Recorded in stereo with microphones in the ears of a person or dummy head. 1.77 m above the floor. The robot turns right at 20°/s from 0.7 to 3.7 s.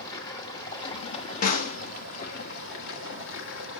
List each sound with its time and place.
0.0 s running water: 25° left, 1.6 m; by 3.8 s 85° left, 1.6 m
1.4 s a snare drum: 45° left (ahead or behind), 1.2 m; by 1.8 s 40° left (ahead or behind), 1.2 m